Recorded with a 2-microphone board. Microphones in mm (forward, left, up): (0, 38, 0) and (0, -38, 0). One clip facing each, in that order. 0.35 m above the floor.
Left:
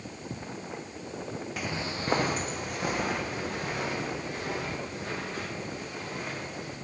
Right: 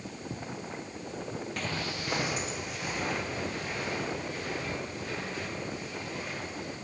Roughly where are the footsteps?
Centre.